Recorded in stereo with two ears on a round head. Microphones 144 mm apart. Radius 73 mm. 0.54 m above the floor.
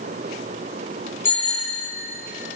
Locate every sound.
1.2 s a bicycle bell: 15° left (ahead or behind), 9.5 m